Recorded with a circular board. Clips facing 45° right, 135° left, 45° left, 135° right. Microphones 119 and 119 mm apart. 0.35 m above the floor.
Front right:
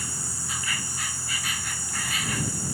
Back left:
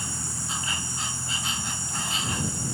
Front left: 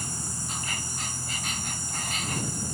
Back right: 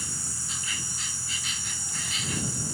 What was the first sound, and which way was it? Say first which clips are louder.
An insect: back left 2 dB, front left 4 dB; 75° left.